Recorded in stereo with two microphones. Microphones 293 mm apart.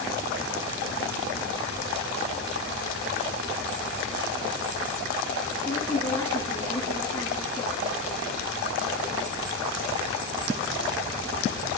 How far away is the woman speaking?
About 5.5 m.